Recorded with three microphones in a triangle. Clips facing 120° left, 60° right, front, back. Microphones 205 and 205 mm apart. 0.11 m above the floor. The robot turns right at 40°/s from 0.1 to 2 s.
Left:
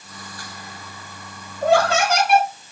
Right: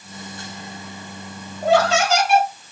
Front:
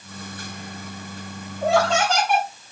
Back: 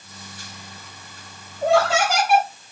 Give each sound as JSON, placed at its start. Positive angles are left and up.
{"t": 1.6, "sound": "laughter", "azimuth_deg": 85, "distance_m": 3.0}